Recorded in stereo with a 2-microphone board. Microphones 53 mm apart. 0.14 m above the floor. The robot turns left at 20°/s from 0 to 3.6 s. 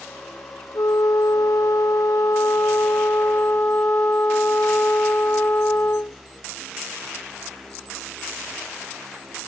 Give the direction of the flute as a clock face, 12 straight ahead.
9 o'clock.